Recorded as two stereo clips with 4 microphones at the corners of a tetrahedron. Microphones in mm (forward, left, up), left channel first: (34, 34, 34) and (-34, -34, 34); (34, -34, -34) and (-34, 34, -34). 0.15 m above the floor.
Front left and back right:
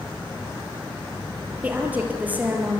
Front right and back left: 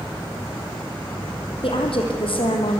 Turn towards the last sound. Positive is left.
turn(degrees=-60)